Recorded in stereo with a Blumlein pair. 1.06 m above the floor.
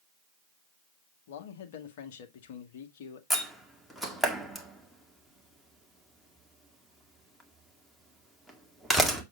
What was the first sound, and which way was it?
A man speaking, 55° left.